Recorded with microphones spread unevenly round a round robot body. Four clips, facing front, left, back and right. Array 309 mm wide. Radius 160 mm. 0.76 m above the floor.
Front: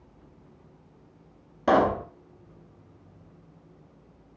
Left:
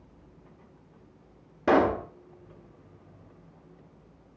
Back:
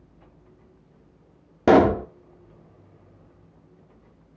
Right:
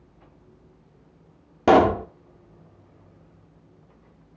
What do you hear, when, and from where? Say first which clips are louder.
1.7 s a pop: right 6 dB, back 6 dB; 155° right, 0.9 m